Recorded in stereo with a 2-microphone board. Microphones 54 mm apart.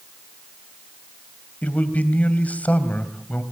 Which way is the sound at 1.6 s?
25° left (ahead or behind).